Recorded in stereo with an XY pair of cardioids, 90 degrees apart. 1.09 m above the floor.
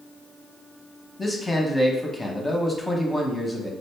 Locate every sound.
1.2 s a man speaking: 20° left, 1.0 m